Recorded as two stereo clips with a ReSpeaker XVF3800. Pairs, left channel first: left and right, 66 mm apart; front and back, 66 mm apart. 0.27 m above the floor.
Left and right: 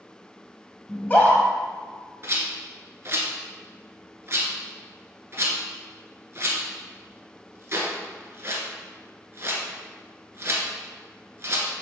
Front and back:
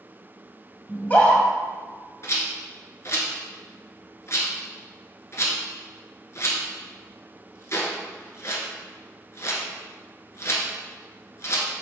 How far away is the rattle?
About 1.3 m.